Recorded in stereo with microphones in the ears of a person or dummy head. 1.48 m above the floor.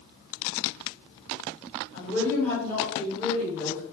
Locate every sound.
1.9 s a woman speaking: 10° left (ahead or behind), 2.0 m